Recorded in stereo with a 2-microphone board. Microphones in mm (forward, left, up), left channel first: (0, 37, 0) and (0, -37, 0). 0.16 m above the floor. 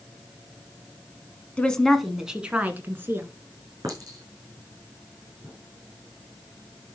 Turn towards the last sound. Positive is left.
turn(degrees=-55)  # may be behind; listen again after turning